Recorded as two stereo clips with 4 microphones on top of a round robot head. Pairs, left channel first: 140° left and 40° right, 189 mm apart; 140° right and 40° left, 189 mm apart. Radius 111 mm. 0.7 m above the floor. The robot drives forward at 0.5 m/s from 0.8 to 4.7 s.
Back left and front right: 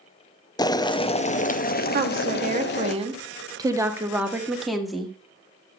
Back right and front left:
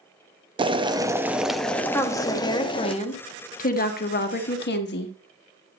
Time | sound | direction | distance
0.6 | boiling | 85° left | 0.7 m
1.9 | a woman speaking | 65° right | 1.5 m